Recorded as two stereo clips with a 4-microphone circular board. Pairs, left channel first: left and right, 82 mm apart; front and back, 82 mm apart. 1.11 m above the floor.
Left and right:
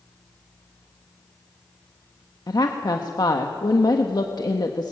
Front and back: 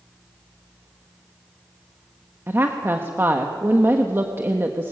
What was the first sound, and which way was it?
A woman speaking, 120° left.